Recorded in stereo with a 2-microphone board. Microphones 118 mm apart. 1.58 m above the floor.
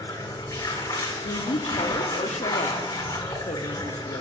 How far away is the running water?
About 1.3 m.